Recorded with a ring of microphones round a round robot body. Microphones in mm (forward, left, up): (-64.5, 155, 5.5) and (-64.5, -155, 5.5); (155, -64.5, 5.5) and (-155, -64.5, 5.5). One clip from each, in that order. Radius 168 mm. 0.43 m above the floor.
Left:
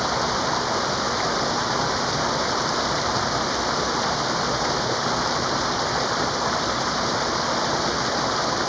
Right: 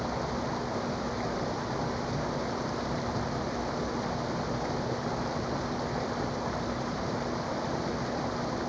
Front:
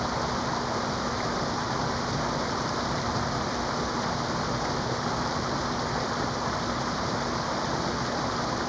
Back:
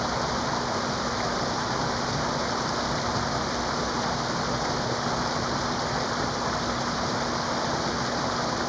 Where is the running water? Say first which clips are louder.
Left 10 dB, back 2 dB; 95° left.